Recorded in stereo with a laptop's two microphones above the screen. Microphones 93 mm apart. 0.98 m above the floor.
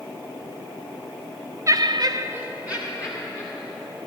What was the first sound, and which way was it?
Laughter, 35° right (ahead or behind).